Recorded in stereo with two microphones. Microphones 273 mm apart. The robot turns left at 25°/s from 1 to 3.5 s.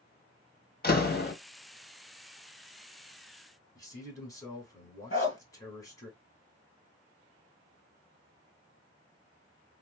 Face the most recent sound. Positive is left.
turn(degrees=50)  # may be behind; listen again after turning